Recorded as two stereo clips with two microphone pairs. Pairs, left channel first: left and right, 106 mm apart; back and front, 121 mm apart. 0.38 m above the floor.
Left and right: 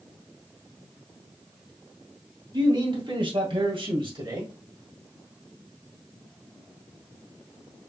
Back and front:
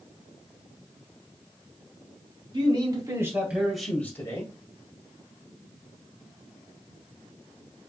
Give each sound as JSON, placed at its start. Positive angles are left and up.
{"t": 2.5, "sound": "a man speaking", "azimuth_deg": -45, "distance_m": 2.5}